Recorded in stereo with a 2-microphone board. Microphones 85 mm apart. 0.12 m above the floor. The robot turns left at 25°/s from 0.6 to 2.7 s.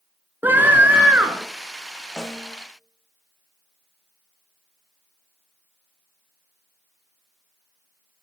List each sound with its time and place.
0.4 s a scream: 25° right (ahead or behind), 1.3 m; by 1.5 s 15° right (ahead or behind), 1.3 m
2.2 s a snare drum: 10° left (ahead or behind), 3 m; by 2.5 s centre (ahead or behind), 3 m